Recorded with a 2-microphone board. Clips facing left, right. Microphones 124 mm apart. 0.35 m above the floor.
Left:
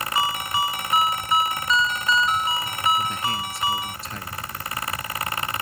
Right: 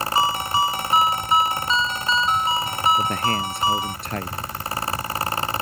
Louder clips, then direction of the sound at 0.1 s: Right 4 dB; 30° right (ahead or behind).